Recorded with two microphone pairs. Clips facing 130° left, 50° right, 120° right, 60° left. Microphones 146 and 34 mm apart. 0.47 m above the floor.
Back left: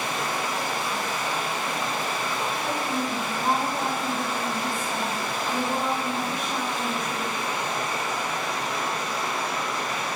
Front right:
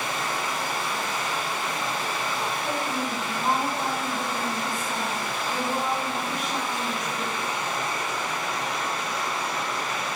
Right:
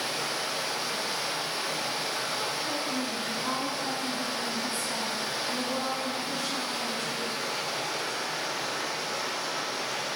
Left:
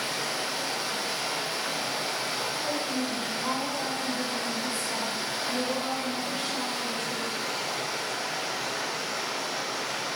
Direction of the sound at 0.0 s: 80° left.